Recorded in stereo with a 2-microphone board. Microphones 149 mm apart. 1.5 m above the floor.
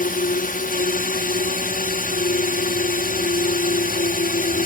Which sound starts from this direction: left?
A drone, at 0.0 s.